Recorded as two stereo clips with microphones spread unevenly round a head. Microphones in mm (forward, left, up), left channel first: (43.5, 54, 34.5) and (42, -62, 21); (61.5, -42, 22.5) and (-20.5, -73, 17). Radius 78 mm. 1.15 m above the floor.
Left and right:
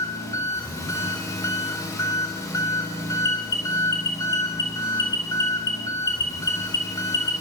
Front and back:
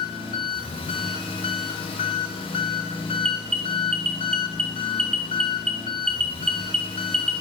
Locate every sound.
0.0 s an engine running: 30° left, 4 m
3.2 s an alarm: 160° left, 1.4 m